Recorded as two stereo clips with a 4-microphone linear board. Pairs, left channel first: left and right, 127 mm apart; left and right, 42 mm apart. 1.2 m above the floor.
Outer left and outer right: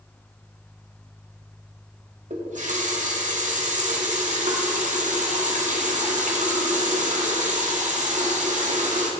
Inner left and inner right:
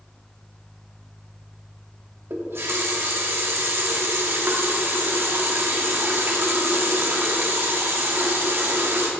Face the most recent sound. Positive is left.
turn(degrees=-75)  # may be behind; listen again after turning